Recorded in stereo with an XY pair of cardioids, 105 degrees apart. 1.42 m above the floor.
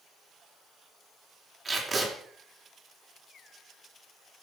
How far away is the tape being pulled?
About 4 m.